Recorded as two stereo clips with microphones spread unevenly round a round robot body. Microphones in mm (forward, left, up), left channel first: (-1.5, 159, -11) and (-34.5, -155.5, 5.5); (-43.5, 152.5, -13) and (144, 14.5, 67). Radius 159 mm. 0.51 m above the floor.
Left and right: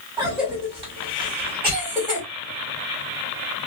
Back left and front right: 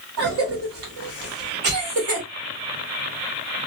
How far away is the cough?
About 1.2 m.